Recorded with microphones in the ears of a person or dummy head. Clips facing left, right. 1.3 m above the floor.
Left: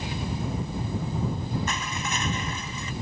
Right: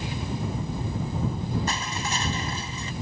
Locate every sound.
1.7 s crushing: 30° right (ahead or behind)